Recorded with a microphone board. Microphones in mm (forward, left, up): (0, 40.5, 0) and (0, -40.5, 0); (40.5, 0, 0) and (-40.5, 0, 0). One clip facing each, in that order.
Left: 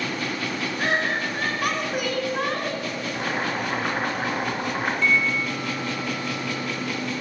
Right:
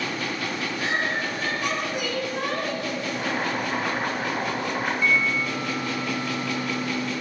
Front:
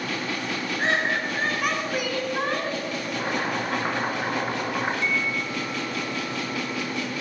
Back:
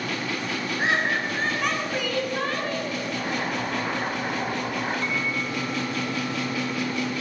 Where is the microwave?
165° right, 1.8 m.